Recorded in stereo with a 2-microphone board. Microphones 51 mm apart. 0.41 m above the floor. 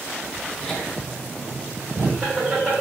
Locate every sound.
0.6 s laughter: 5° right (ahead or behind), 1.1 m; by 2.8 s 25° right (ahead or behind), 1.3 m